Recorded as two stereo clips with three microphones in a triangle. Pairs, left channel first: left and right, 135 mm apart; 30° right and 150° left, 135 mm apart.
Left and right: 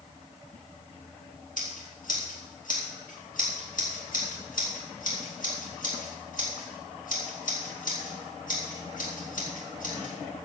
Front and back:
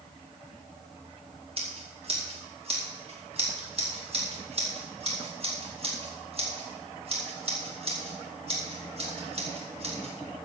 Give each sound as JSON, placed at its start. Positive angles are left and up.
{"t": 1.6, "sound": "scissors", "azimuth_deg": 105, "distance_m": 4.0}